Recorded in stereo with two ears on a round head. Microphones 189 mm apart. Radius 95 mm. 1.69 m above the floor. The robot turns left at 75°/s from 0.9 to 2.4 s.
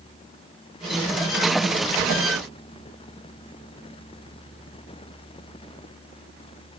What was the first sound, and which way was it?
Only background noise.